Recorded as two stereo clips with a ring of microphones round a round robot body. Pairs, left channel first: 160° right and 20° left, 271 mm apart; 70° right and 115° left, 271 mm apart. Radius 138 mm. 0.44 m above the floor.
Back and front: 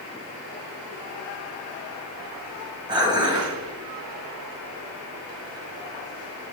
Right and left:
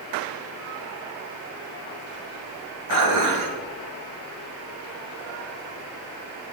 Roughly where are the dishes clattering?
Left.